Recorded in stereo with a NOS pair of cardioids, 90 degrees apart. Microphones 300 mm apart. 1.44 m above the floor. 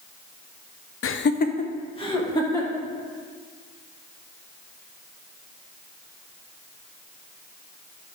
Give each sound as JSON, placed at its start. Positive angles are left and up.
{"t": 1.0, "sound": "laughter", "azimuth_deg": 50, "distance_m": 0.6}